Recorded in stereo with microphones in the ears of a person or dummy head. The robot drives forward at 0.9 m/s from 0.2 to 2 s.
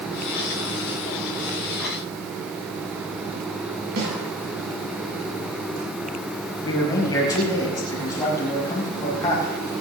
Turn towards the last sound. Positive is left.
turn(degrees=25)  # may be behind; listen again after turning